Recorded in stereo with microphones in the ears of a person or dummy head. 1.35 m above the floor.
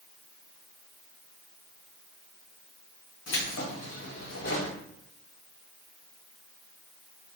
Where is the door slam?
No door slam in this recording.